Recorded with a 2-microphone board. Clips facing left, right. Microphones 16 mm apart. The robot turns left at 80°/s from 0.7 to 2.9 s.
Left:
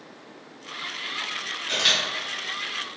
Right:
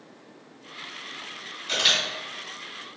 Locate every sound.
1.7 s a camera shutter: 10° right (ahead or behind), 1.2 m; by 2.0 s 15° left (ahead or behind), 1.2 m